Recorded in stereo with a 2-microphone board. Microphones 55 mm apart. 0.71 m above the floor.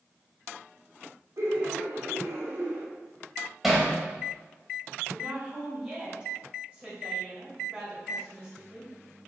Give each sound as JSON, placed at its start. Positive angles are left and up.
{"t": 1.4, "sound": "laughter", "side_deg": -65, "distance_m": 2.5}
{"t": 3.6, "sound": "hammering", "side_deg": -5, "distance_m": 2.5}
{"t": 5.1, "sound": "a woman speaking", "side_deg": -20, "distance_m": 3.0}